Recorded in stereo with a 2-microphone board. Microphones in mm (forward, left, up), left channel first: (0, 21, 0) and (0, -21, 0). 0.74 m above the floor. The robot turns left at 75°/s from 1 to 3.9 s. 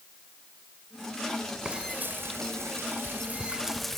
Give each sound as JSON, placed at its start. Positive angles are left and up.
{"t": 1.6, "sound": "frying", "azimuth_deg": -15, "distance_m": 2.5}